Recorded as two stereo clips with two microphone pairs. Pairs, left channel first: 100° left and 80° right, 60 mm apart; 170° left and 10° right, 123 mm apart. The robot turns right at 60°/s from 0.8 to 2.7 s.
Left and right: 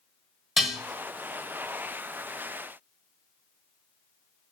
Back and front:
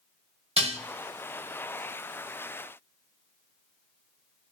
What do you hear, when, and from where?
0.6 s dishes clattering: 5° left, 0.9 m